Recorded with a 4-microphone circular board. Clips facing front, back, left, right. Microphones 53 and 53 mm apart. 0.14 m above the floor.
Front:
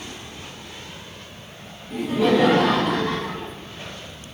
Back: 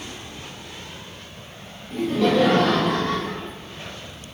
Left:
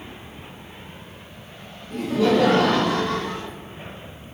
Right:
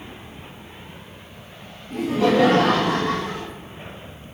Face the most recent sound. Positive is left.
turn(degrees=-55)